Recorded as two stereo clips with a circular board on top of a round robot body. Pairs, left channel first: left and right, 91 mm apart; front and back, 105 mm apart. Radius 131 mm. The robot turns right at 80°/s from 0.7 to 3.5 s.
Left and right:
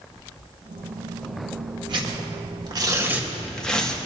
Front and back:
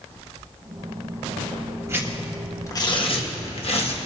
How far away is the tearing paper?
About 1.7 m.